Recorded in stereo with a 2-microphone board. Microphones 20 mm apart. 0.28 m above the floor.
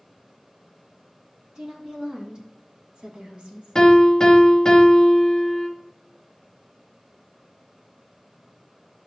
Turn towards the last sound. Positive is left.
turn(degrees=30)  # may be behind; listen again after turning